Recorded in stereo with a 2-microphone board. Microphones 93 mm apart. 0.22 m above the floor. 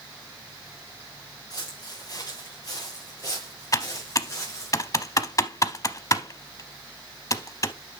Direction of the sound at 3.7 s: 40° left (ahead or behind).